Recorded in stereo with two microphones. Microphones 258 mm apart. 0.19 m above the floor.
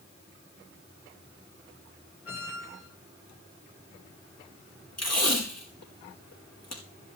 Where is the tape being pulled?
75° left (ahead or behind), 4.5 m.